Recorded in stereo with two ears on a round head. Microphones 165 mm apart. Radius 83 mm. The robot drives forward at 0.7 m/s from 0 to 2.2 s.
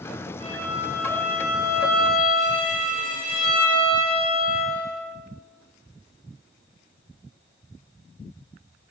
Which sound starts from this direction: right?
A violin, at 0.4 s.